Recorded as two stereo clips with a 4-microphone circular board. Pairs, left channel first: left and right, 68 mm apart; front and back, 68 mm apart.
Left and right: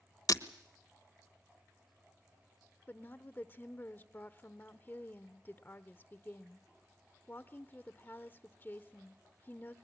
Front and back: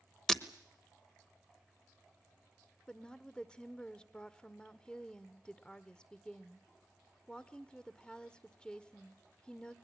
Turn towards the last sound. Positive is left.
turn(degrees=65)